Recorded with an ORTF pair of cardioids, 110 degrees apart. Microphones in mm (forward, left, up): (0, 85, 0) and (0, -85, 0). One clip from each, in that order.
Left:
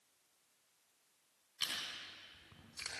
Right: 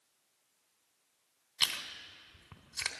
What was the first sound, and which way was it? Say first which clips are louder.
Chewing: right 7 dB; 65° right.